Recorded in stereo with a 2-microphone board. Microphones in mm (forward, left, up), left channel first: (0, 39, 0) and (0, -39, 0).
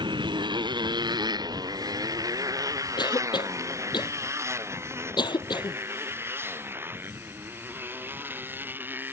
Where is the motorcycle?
85° right; by 9.1 s 25° right (ahead or behind).